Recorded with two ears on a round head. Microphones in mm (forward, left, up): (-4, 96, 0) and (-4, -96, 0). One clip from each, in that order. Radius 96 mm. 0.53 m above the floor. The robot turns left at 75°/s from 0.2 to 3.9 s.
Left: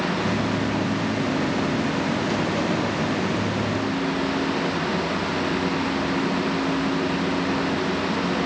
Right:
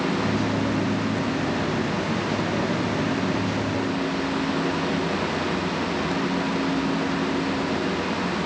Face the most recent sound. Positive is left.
No sound to turn to.